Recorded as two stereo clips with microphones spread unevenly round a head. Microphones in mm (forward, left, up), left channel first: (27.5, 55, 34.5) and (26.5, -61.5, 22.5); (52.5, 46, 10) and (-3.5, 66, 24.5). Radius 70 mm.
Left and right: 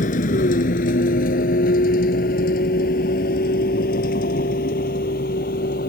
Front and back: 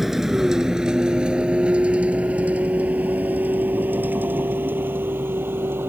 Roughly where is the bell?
No bell in this recording.